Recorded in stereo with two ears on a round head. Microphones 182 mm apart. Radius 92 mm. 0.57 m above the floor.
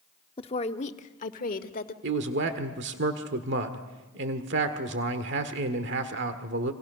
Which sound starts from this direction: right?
A man speaking, at 2.0 s.